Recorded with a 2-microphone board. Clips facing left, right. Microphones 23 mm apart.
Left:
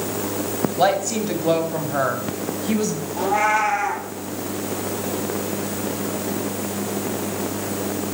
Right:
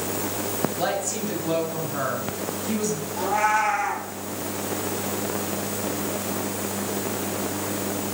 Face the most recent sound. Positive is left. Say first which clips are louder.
# left 3 dB
turn(degrees=20)  # may be behind; listen again after turning